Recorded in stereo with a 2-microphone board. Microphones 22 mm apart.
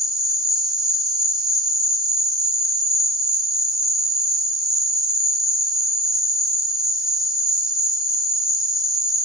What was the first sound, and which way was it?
An insect, 20° right (ahead or behind).